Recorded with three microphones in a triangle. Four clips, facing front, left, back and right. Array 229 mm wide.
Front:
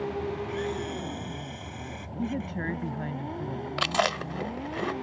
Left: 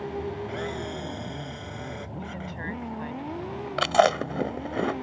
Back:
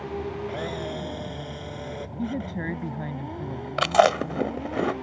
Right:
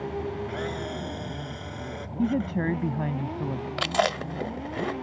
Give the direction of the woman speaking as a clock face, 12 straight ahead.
3 o'clock.